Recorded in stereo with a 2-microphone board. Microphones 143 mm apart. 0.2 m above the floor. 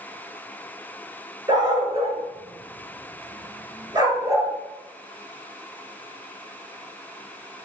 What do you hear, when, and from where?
1.5 s a dog barking: 30° right (ahead or behind), 1.1 m; by 4.5 s 20° right (ahead or behind), 1.4 m